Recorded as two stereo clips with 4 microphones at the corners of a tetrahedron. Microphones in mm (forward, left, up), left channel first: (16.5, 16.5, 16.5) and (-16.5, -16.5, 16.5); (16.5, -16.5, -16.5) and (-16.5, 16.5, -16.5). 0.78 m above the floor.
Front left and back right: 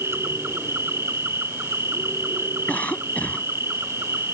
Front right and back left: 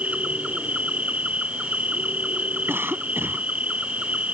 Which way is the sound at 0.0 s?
165° right.